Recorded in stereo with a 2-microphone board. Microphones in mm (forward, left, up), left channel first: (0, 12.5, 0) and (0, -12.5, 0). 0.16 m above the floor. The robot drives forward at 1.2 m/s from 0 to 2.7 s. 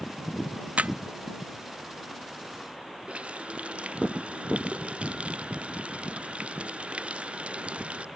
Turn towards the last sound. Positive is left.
turn(degrees=-55)  # may be behind; listen again after turning